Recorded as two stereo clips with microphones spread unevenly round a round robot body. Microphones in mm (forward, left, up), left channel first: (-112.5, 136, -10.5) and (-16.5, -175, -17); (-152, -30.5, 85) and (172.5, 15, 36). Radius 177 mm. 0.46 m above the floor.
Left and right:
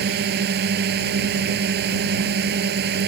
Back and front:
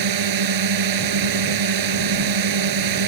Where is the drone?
10° right.